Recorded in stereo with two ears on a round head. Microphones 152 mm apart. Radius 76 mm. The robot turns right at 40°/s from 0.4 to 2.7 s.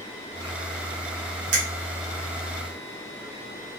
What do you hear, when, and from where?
1.5 s a finger snap: 45° right (ahead or behind), 1.1 m